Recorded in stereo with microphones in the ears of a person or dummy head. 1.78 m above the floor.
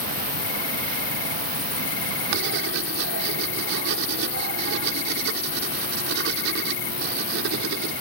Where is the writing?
60° right (ahead or behind).